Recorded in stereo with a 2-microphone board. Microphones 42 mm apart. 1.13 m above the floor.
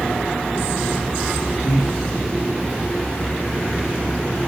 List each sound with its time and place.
1.6 s breathing: 75° left (ahead or behind), 6 m